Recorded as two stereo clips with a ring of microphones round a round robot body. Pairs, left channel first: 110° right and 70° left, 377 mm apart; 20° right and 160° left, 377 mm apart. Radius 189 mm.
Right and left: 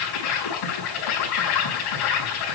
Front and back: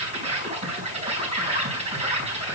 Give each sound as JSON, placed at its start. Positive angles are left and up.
{"t": 0.0, "sound": "an insect", "azimuth_deg": -130, "distance_m": 4.0}